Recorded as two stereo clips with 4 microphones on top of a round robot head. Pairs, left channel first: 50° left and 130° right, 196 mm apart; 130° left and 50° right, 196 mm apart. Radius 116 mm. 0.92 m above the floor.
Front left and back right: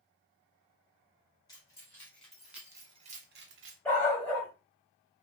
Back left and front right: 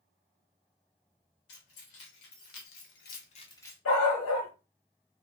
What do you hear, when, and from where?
1.5 s keys jangling: 120° left, 2 m; by 3.8 s 145° right, 1.0 m
3.9 s a dog barking: 130° left, 1.7 m